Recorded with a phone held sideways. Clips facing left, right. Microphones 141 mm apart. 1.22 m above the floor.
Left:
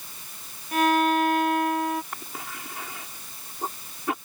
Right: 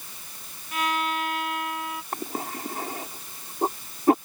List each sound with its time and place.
0.7 s a violin: 45° left (ahead or behind)
2.1 s a cough: 45° right (ahead or behind)